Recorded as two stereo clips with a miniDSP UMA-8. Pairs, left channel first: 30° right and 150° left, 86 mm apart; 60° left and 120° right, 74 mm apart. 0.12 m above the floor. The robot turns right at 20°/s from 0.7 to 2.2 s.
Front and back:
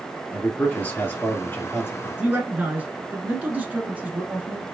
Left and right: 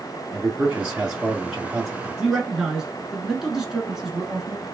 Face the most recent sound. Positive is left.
turn(degrees=175)